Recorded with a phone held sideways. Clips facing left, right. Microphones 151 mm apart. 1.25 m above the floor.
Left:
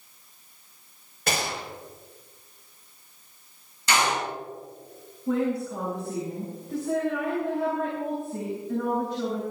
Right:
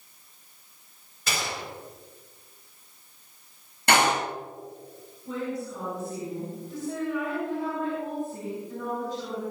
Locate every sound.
1.3 s a gunshot: 55° left (ahead or behind), 4.5 m
3.9 s a door slam: 60° right (ahead or behind), 9 m
5.3 s a woman speaking: 65° left (ahead or behind), 8 m